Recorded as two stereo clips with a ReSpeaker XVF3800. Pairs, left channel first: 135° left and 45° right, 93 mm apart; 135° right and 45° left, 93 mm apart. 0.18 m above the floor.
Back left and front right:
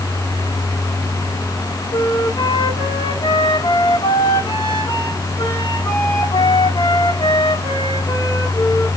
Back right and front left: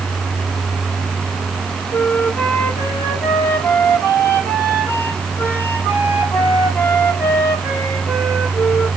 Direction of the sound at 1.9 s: 160° left.